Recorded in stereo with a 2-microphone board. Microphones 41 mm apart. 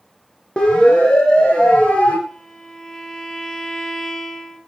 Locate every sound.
0.6 s a siren: 20° left (ahead or behind), 7 m; by 2.2 s 30° left (ahead or behind), 7.5 m
2.3 s a violin: 15° left (ahead or behind), 3.5 m